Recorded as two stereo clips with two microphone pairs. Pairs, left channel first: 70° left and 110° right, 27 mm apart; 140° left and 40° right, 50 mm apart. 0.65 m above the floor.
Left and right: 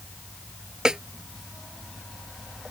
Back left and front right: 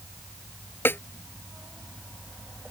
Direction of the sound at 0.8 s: 175° right.